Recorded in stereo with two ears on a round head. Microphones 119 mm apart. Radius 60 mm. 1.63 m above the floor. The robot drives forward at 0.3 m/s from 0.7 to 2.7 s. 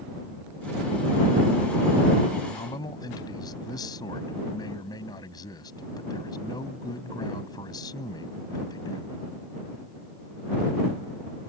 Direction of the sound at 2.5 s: 30° left (ahead or behind).